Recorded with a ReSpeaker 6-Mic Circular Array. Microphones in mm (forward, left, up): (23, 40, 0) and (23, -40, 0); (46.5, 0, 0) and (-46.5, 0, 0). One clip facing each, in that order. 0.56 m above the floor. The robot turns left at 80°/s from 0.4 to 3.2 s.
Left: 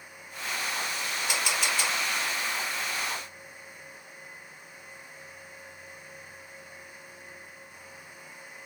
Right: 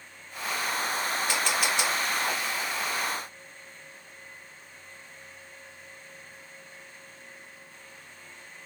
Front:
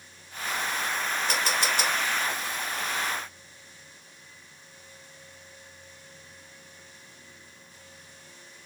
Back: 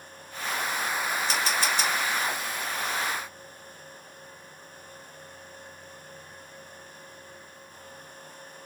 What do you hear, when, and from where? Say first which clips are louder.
1.3 s a camera shutter: even, front 1 dB; 25° left, 2.5 m; by 1.9 s 30° right, 2.5 m